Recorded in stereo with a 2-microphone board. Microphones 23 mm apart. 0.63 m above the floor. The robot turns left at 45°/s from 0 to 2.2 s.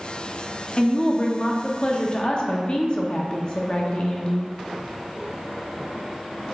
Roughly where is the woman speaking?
Behind left.